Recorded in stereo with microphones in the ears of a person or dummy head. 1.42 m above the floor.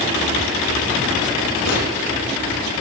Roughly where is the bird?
Left.